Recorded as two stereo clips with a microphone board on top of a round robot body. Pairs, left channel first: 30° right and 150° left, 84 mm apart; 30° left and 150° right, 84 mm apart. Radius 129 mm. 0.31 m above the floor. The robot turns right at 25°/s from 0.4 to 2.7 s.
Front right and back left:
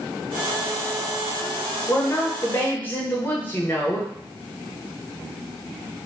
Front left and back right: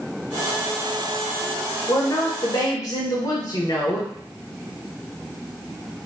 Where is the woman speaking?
10° left, 1.3 m; by 4.1 s 30° left, 1.3 m.